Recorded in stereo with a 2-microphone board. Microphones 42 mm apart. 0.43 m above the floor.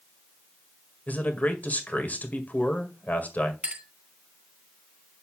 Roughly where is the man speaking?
Left.